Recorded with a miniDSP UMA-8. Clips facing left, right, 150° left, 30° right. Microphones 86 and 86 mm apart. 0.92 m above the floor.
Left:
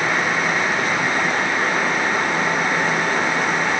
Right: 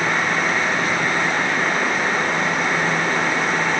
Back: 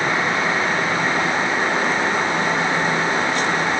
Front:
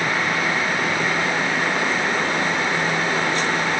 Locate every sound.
Only background noise.